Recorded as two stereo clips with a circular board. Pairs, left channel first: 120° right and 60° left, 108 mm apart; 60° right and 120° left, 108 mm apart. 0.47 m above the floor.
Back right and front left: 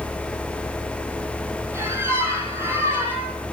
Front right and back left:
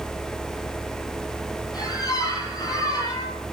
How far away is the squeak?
About 9.5 m.